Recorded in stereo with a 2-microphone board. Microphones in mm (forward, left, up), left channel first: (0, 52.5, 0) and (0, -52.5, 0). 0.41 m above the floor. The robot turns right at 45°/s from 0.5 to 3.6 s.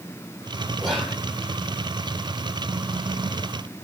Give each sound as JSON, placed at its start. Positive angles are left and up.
{"t": 0.8, "sound": "whispering", "side_deg": 0, "distance_m": 1.3}